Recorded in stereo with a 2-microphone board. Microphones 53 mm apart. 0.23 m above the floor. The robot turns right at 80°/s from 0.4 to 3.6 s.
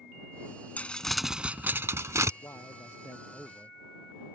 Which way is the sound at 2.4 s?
80° left.